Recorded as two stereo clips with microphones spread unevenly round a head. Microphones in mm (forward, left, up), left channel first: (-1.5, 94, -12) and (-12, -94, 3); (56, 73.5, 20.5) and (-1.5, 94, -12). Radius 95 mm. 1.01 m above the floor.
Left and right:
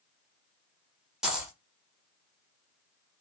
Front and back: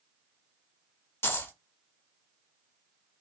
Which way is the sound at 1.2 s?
10° right.